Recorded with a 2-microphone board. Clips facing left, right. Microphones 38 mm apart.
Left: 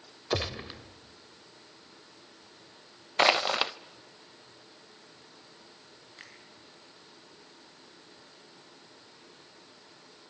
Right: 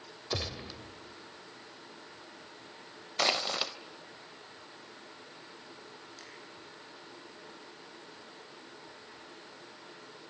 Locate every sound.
0.3 s a gunshot: 30° left (ahead or behind), 1.7 m
3.2 s crushing: 30° left (ahead or behind), 0.5 m
6.2 s a finger snap: 30° left (ahead or behind), 6 m